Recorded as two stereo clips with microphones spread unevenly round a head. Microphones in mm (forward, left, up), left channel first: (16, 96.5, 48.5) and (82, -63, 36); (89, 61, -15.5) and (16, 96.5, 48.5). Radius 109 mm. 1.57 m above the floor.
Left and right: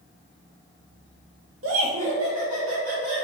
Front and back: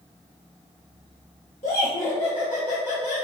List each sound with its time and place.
1.6 s laughter: 70° right, 0.7 m; by 3.3 s 80° right, 2.0 m